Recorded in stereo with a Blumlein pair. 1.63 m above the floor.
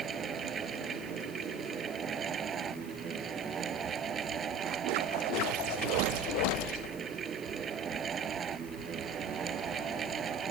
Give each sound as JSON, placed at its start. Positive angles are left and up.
{"t": 0.0, "sound": "a fan", "azimuth_deg": -25}